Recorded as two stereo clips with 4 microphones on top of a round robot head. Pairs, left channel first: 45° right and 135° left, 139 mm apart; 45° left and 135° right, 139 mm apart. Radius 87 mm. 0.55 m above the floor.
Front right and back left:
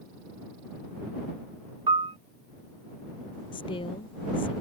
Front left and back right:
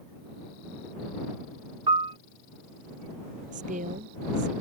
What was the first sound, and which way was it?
A piano, straight behind.